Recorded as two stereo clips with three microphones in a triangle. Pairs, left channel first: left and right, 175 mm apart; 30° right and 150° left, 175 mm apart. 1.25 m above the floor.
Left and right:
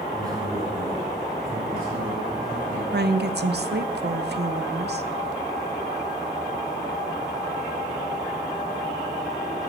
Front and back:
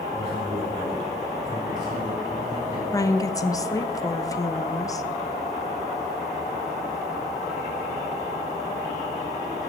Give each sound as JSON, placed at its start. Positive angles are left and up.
{"t": 0.1, "sound": "a man speaking", "azimuth_deg": -160, "distance_m": 3.5}
{"t": 2.9, "sound": "a woman speaking", "azimuth_deg": -100, "distance_m": 0.6}